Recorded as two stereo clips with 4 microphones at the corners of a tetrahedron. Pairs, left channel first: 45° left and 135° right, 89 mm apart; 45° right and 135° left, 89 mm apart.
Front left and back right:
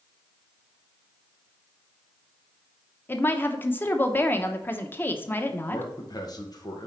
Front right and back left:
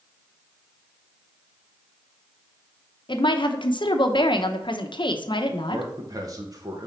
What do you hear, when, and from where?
3.1 s a woman speaking: 20° right, 0.8 m
5.7 s a man speaking: 90° left, 1.4 m